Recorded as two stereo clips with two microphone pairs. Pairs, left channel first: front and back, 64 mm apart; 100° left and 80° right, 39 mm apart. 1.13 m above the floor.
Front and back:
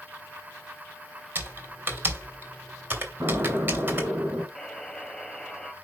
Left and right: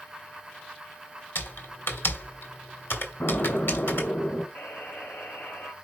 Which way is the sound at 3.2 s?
140° left.